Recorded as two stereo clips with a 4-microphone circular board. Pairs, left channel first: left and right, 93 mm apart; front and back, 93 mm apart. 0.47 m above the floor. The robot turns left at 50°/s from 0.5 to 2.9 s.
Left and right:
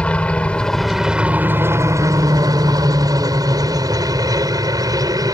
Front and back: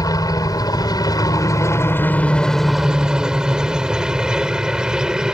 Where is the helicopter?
20° left; by 5.3 s 100° right.